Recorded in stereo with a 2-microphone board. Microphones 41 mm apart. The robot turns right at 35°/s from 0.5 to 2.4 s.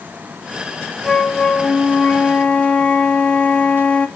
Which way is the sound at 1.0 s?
5° left (ahead or behind).